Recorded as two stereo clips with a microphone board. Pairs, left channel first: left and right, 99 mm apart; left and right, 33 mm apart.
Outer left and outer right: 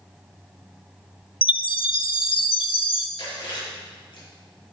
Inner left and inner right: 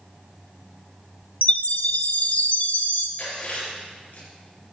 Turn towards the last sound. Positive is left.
turn(degrees=50)  # may be behind; listen again after turning